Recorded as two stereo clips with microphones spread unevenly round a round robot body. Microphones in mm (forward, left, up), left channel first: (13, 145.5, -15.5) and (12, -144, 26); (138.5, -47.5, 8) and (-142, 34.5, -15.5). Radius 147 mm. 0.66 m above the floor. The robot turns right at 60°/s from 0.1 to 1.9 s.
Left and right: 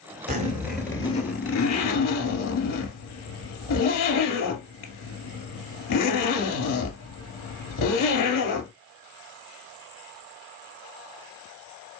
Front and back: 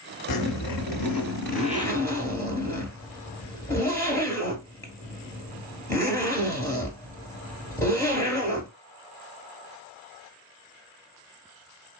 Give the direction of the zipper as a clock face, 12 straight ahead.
1 o'clock.